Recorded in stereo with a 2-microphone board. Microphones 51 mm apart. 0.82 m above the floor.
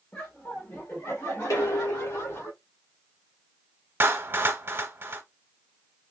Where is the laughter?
30° left (ahead or behind), 1.1 m; by 2.5 s 70° left (ahead or behind), 2.5 m.